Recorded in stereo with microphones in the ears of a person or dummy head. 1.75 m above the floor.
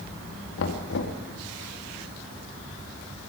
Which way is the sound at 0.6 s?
65° left (ahead or behind).